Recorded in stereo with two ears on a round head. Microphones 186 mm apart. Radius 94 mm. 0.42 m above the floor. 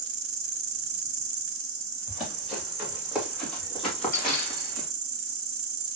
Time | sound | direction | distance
0.0 | an insect | 65° right (ahead or behind) | 1.1 m
2.1 | running footsteps | 5° right (ahead or behind) | 3.5 m